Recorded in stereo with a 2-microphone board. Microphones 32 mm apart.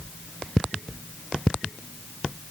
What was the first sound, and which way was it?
Only background noise.